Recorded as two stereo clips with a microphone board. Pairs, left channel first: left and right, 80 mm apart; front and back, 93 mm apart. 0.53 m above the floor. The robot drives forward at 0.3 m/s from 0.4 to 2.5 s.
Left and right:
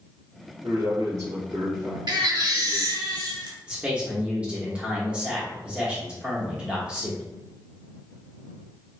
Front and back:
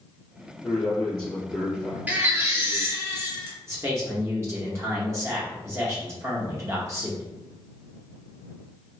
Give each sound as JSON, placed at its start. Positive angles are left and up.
{"t": 0.6, "sound": "a man speaking", "azimuth_deg": -70, "distance_m": 1.5}
{"t": 2.1, "sound": "a baby crying", "azimuth_deg": -105, "distance_m": 0.6}
{"t": 3.7, "sound": "a man speaking", "azimuth_deg": -155, "distance_m": 0.8}